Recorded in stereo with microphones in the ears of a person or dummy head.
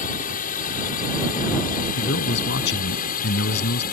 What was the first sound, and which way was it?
A drone, 40° left (ahead or behind).